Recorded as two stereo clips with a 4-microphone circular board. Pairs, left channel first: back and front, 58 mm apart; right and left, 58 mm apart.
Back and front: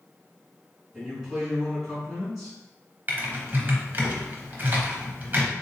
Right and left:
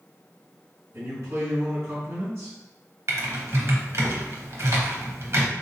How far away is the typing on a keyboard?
About 0.8 m.